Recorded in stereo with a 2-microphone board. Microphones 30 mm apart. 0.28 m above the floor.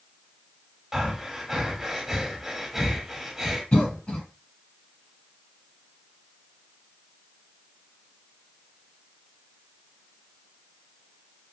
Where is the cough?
35° left (ahead or behind), 1.7 m.